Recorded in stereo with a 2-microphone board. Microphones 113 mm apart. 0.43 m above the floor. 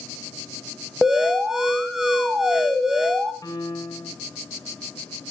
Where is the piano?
30° left (ahead or behind), 3.5 m.